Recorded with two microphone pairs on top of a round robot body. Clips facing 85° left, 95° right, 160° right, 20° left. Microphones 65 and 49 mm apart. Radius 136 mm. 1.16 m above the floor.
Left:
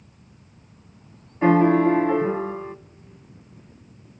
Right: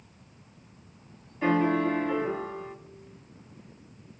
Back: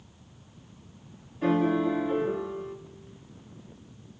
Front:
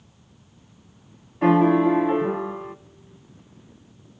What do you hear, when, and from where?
1.4 s a piano: 30° left, 1.0 m